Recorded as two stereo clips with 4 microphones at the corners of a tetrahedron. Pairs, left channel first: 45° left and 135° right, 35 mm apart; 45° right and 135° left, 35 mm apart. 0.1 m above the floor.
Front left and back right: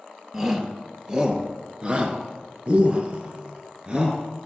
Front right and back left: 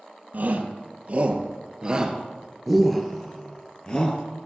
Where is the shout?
155° left, 1.9 m; by 4.2 s 85° right, 1.5 m.